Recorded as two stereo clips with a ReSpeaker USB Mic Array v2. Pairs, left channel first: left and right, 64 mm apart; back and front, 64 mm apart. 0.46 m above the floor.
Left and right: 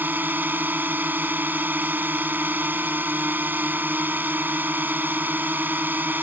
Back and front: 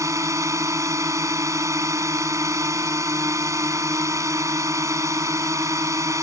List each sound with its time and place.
0.0 s a drone: 30° right